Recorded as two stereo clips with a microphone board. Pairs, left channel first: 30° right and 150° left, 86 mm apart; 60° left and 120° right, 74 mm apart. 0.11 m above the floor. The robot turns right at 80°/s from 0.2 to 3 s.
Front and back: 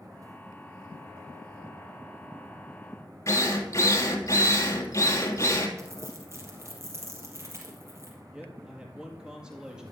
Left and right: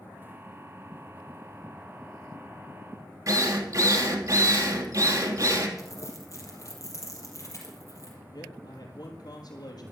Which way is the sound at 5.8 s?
100° left.